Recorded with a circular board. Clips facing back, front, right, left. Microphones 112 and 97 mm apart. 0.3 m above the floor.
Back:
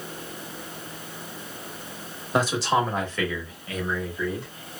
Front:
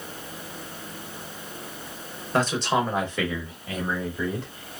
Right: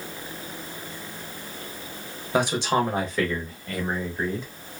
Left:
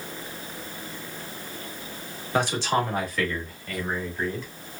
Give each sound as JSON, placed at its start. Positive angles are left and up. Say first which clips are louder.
{"t": 2.3, "sound": "a man speaking", "louder": "back 1 dB, right 2 dB", "azimuth_deg": -135, "distance_m": 0.9}